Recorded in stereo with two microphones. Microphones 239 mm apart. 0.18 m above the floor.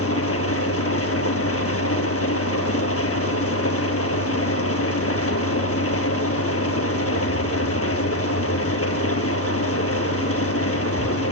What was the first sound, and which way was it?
An engine running, 75° left (ahead or behind).